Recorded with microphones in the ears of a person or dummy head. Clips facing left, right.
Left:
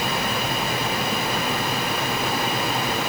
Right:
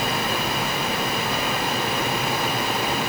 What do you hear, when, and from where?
Only background noise.